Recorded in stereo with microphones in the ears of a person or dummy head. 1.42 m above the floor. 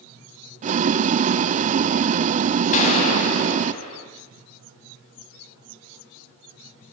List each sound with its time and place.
0.6 s boiling: 35° right (ahead or behind), 0.5 m
2.7 s a gunshot: 50° left (ahead or behind), 6.5 m